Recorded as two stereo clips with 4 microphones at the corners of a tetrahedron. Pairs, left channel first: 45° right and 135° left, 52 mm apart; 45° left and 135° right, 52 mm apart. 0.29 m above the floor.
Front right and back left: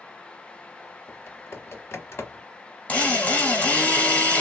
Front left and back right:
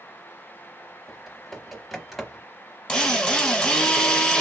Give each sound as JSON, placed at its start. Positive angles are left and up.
{"t": 1.1, "sound": "typing on a keyboard", "azimuth_deg": -45, "distance_m": 0.9}
{"t": 2.9, "sound": "a drill", "azimuth_deg": -20, "distance_m": 1.1}